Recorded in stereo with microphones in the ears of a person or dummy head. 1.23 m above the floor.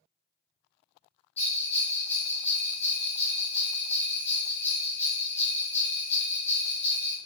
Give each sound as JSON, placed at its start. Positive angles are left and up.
{"t": 1.4, "sound": "a bell", "side_deg": 15, "distance_m": 1.2}